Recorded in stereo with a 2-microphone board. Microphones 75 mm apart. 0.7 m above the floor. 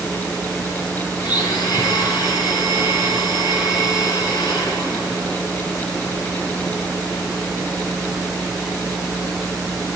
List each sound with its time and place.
1.2 s a blender: 60° left (ahead or behind), 6.5 m